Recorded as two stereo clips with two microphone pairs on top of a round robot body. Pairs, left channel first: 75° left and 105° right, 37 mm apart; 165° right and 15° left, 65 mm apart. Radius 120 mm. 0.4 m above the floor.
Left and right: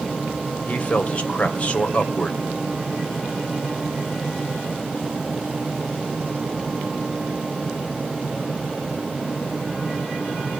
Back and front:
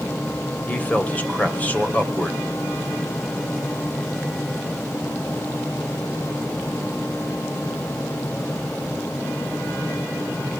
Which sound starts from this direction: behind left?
A man speaking, at 0.7 s.